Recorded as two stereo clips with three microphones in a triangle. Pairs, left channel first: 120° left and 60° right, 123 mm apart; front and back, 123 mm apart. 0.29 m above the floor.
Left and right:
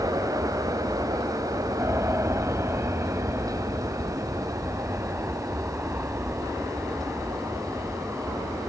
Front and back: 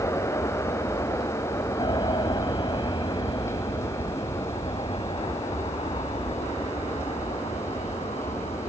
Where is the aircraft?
15° right; by 8.7 s 10° left.